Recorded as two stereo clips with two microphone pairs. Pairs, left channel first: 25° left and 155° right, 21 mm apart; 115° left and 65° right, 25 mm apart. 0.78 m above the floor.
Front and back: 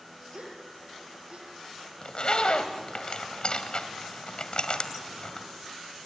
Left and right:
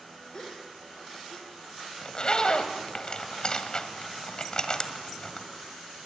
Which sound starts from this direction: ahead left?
A zipper, at 2.0 s.